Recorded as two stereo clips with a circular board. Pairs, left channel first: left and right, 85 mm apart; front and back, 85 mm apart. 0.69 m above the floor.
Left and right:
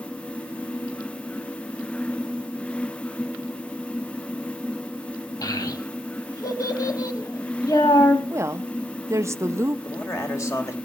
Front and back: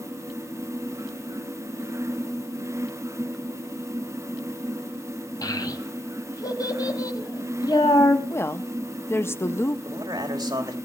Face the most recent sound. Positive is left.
turn(degrees=140)